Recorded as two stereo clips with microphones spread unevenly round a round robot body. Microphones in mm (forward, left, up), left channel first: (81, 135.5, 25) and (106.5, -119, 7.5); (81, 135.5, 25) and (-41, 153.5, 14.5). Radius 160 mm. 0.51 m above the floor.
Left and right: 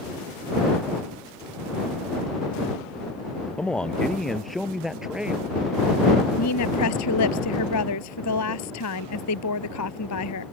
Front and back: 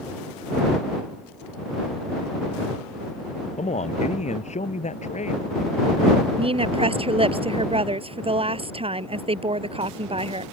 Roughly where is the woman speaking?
Behind left.